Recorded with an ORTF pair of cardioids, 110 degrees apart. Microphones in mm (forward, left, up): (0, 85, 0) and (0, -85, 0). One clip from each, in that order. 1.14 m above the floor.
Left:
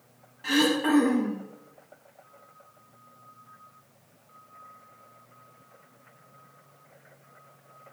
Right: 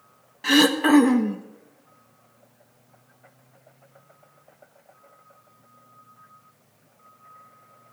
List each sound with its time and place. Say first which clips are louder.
0.4 s throat clearing: right 6 dB; 40° right, 1.3 m